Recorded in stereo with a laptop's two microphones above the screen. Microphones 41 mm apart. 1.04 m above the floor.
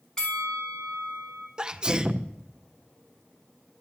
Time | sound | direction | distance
0.2 | a bell | 15° left (ahead or behind) | 2.5 m
1.6 | a sneeze | 20° right (ahead or behind) | 0.6 m